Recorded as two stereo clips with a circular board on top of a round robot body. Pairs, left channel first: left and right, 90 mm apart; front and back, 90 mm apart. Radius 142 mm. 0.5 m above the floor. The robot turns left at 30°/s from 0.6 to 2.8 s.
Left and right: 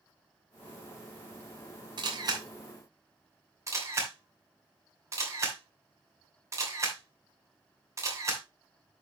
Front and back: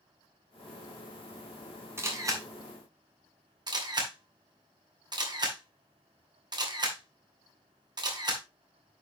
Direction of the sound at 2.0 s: 120° right.